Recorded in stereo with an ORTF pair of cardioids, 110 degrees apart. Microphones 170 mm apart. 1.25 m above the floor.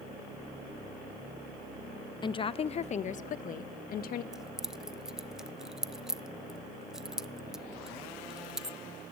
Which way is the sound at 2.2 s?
25° left.